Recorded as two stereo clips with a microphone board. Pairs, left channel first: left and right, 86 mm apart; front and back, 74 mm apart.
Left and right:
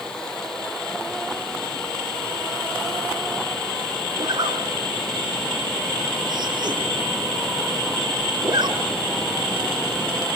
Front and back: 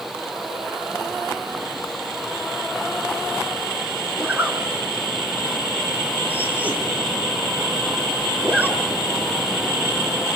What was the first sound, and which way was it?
A zipper, 110° right.